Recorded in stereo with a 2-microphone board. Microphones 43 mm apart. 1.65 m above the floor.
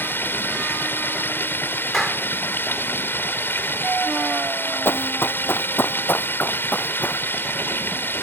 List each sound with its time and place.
0.0 s running water: 55° left (ahead or behind)
1.9 s a clap: centre (ahead or behind)
4.8 s running footsteps: 60° left (ahead or behind); by 7.2 s 35° left (ahead or behind)